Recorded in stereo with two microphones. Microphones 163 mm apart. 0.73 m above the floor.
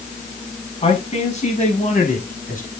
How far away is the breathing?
I don't hear breathing.